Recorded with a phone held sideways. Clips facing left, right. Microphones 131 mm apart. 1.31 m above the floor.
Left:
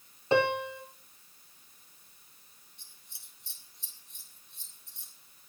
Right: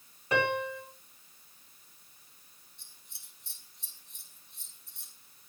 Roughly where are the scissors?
Centre.